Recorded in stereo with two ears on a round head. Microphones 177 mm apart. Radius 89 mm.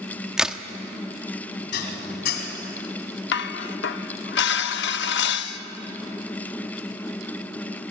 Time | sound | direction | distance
0.4 | a crack | 5° right (ahead or behind) | 0.8 m
1.7 | dishes clattering | 55° left (ahead or behind) | 3 m
3.3 | dishes clattering | 60° left (ahead or behind) | 0.9 m